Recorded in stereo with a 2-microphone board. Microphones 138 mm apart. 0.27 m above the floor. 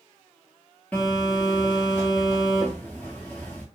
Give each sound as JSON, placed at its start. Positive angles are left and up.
{"t": 0.9, "sound": "a phone buzzing", "side_deg": 10, "distance_m": 1.1}